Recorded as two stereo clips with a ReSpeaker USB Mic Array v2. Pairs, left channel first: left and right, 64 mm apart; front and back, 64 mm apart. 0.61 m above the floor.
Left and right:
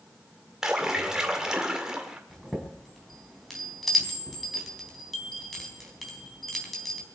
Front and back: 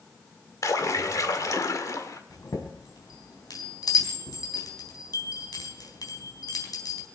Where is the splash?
10° right, 1.9 m.